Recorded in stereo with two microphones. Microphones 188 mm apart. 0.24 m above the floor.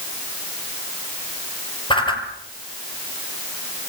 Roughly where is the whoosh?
Left.